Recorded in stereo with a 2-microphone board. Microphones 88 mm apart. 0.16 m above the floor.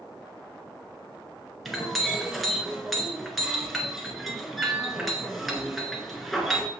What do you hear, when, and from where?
1.6 s a clink: centre (ahead or behind), 1.7 m